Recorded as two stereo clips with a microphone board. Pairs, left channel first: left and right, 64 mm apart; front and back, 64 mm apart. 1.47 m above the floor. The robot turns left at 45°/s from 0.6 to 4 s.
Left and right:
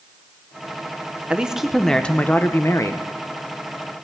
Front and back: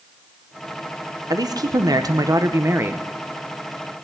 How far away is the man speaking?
About 0.9 m.